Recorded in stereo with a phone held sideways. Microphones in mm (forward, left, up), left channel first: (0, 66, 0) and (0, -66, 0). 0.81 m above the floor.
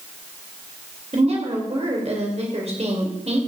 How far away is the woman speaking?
About 3 m.